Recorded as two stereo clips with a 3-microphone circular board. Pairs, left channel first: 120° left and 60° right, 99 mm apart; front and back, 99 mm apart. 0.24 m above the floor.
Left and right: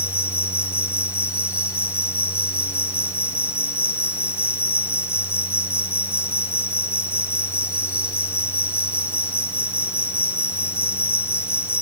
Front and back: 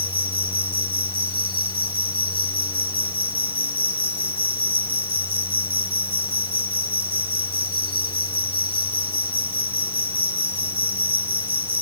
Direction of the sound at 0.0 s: 175° right.